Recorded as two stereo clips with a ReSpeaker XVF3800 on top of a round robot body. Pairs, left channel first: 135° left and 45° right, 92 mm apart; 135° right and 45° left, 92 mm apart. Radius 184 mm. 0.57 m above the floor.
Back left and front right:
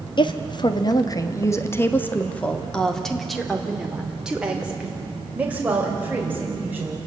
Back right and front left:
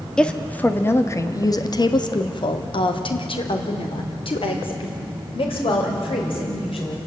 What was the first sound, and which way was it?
A woman speaking, 145° left.